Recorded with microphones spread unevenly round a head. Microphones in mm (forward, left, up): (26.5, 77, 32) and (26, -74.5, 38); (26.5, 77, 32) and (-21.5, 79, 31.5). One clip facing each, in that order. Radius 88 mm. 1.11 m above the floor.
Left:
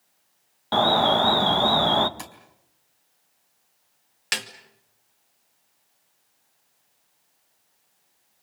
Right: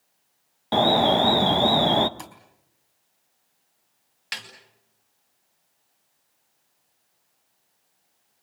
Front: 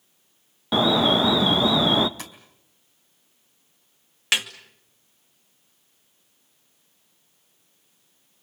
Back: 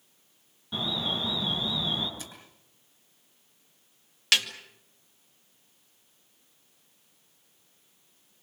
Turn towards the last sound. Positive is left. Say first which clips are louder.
# left 7 dB, front 1 dB
turn(degrees=65)